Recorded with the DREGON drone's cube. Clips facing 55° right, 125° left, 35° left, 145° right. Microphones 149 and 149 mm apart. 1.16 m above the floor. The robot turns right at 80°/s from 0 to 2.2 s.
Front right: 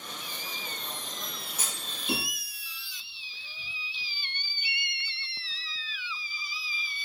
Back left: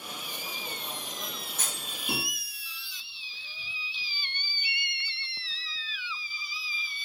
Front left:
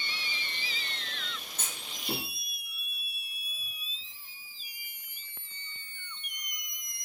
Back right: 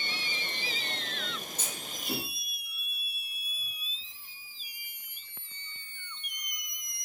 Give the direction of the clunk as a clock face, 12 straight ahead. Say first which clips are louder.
Back left 1 dB, back right 3 dB; 11 o'clock.